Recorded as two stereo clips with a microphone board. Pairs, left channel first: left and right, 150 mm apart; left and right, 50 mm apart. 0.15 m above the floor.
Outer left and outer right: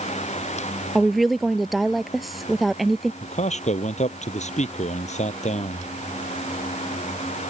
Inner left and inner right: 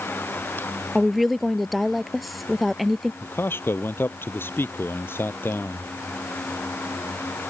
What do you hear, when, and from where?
0.9 s a woman speaking: centre (ahead or behind)
3.2 s a man speaking: 50° left (ahead or behind)